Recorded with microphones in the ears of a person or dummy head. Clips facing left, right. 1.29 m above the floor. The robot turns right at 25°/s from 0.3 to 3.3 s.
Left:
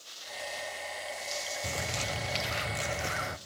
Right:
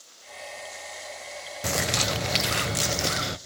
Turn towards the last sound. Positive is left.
turn(degrees=-55)